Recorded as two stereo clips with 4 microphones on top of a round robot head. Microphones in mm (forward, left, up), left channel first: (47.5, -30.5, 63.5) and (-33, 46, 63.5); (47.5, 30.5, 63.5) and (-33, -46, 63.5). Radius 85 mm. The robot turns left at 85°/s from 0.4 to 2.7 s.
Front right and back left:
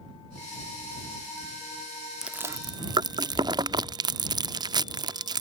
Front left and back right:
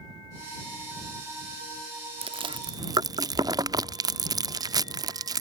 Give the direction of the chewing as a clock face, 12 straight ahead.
5 o'clock.